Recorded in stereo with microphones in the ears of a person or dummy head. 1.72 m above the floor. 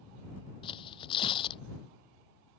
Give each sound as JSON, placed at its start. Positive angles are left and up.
{"t": 0.6, "sound": "tearing paper", "side_deg": 30}